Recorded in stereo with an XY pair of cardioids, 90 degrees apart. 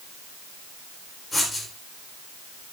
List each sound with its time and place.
1.3 s writing: 25° left, 3.5 m